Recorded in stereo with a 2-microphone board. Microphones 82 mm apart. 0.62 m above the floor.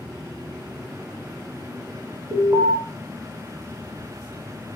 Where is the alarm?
40° right (ahead or behind), 1.3 m.